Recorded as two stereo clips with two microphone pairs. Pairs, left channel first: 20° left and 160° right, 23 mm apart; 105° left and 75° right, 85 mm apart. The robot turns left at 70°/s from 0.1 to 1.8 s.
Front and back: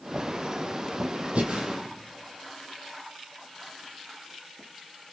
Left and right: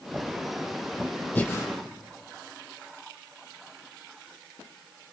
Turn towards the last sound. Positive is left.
turn(degrees=145)